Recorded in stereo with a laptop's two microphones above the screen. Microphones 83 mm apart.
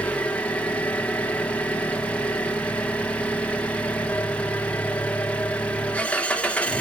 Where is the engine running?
15° left (ahead or behind), 1.1 m.